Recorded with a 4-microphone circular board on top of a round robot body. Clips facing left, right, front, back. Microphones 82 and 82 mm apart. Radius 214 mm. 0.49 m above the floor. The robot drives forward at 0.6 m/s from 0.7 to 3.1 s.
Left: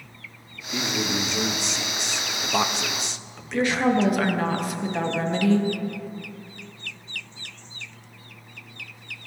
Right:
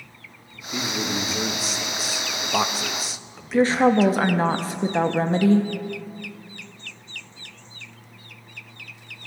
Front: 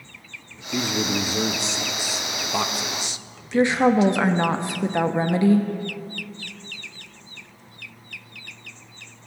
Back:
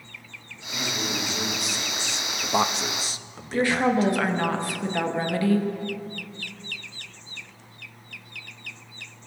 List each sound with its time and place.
0.7 s a man speaking: 5° right, 1.2 m; by 4.1 s 175° right, 1.0 m
3.5 s a woman speaking: 55° right, 1.2 m